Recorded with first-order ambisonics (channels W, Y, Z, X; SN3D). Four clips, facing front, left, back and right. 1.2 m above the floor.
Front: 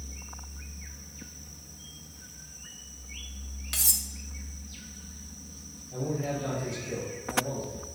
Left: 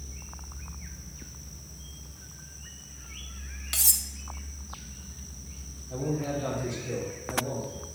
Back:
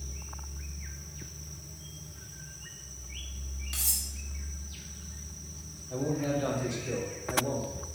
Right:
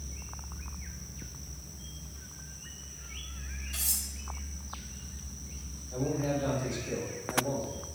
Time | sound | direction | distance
3.7 | cutlery clinking | 70° left | 0.9 m
5.9 | a man speaking | 145° left | 3.5 m